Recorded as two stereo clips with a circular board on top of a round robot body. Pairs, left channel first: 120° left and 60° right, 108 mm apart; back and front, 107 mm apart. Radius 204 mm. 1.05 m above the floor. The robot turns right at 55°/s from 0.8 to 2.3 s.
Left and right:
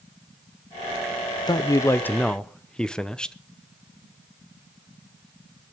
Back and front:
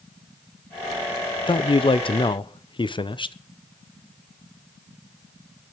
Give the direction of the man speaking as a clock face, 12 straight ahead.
7 o'clock.